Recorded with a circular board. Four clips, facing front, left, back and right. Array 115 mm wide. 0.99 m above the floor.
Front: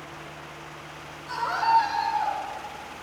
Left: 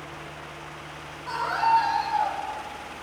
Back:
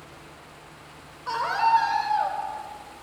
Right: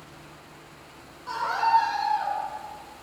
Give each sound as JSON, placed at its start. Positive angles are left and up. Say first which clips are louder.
{"t": 1.3, "sound": "a scream", "louder": "left 1 dB, back 2 dB", "azimuth_deg": 170, "distance_m": 4.0}